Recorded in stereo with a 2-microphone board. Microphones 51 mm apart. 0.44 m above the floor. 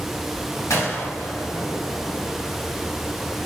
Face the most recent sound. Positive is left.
turn(degrees=75)  # may be behind; listen again after turning